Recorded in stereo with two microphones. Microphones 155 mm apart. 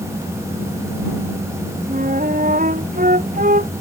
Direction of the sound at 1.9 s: 60° right (ahead or behind).